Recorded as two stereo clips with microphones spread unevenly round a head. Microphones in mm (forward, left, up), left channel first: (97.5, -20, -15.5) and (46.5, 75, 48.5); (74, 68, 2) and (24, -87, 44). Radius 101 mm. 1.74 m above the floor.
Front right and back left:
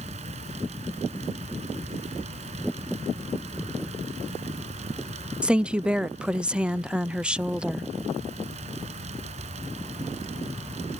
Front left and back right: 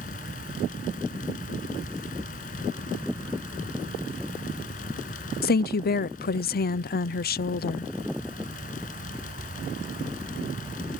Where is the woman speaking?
40° left.